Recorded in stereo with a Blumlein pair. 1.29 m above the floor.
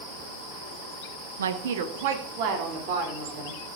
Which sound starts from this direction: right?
A woman speaking, at 1.4 s.